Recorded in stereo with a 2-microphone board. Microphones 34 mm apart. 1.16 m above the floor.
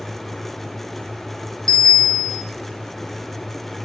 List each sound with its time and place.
1.7 s a bicycle bell: 25° left (ahead or behind), 3.5 m